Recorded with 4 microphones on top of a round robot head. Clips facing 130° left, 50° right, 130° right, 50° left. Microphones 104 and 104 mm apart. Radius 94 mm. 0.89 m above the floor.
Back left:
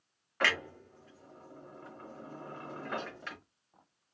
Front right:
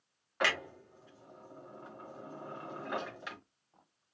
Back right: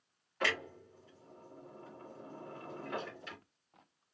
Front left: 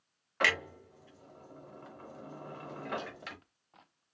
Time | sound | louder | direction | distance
0.4 | a clunk | back left 1 dB, front left 3 dB | 25° left | 1.0 m